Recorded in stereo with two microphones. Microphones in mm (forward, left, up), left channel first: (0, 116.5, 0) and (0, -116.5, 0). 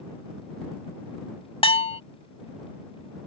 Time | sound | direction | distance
1.6 | a bell | 25° left (ahead or behind) | ?